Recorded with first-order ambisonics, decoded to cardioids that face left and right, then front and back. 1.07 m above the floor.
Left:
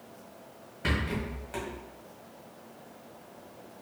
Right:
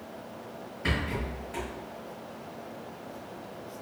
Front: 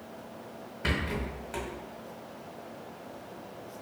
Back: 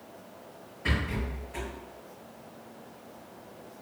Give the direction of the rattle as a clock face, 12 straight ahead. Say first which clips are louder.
Even, even; 11 o'clock.